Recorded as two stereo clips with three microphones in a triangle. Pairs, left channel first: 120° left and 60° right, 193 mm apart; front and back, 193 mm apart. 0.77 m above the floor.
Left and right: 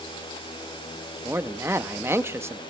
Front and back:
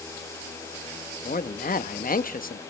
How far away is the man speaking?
About 0.7 m.